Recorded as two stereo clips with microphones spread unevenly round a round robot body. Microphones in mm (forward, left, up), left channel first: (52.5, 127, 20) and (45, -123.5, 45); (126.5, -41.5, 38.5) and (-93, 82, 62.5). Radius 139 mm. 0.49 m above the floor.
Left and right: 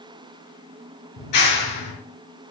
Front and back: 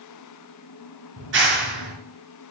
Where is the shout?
No shout in this recording.